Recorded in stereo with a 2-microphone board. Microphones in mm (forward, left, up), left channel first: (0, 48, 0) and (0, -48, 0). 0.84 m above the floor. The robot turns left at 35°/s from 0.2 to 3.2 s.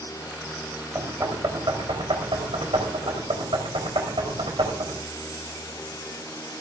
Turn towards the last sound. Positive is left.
turn(degrees=-70)  # may be behind; listen again after turning